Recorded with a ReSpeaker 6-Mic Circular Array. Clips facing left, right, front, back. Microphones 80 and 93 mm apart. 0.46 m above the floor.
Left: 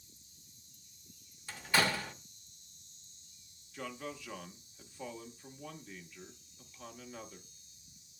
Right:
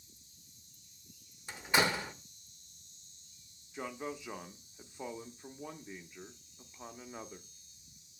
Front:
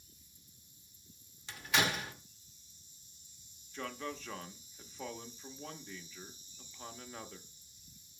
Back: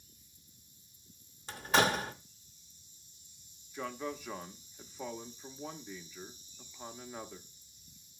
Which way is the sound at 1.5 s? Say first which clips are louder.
Right 1 dB, back 5 dB; 150° right.